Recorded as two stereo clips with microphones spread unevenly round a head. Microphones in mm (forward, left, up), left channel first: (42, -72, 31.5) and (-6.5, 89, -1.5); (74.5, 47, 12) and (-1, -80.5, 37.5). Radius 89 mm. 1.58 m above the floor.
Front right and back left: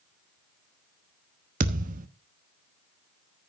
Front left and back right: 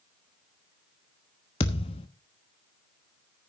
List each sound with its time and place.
1.6 s a thud: 110° left, 1.0 m